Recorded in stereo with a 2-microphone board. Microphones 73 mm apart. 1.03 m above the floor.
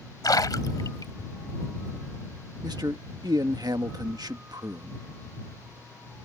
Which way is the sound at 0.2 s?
65° left (ahead or behind).